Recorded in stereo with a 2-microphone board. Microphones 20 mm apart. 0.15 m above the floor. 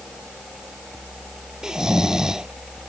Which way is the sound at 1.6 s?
35° right (ahead or behind).